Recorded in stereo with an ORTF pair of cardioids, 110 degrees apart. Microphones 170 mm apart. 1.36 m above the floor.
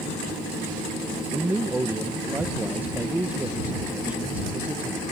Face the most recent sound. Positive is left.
turn(degrees=-10)